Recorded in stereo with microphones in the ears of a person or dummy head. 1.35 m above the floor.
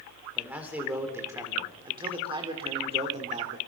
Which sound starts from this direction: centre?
A man speaking, at 0.3 s.